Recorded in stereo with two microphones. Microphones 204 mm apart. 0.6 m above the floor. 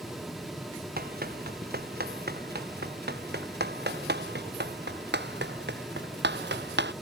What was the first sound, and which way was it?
Running footsteps, 45° right (ahead or behind).